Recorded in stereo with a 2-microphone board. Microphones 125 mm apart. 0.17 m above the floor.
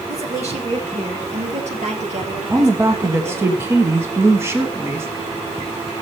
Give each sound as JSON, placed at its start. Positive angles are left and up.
{"t": 0.1, "sound": "a woman speaking", "side_deg": -60, "distance_m": 2.5}
{"t": 2.5, "sound": "a woman speaking", "side_deg": -20, "distance_m": 1.3}